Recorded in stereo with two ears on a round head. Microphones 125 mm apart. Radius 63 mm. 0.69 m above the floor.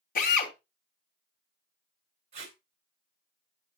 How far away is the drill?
About 3 m.